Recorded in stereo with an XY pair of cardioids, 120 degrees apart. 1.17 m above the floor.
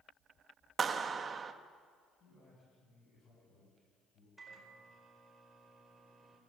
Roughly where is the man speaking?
Ahead left.